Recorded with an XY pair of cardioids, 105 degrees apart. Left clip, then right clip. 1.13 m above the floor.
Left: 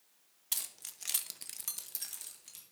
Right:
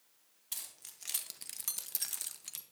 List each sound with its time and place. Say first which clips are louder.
0.5 s keys jangling: left 6 dB; 45° left, 1.0 m; by 2.6 s 55° right, 1.0 m